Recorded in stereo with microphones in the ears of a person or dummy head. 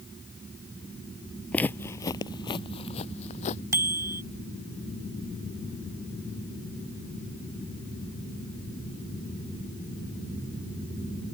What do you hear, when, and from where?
1.5 s footsteps: 5° left (ahead or behind); by 3.6 s 35° left (ahead or behind)
3.7 s a bicycle bell: 20° right (ahead or behind)